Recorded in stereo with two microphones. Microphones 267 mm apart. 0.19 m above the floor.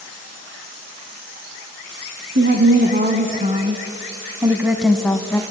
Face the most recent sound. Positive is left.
turn(degrees=10)  # may be behind; listen again after turning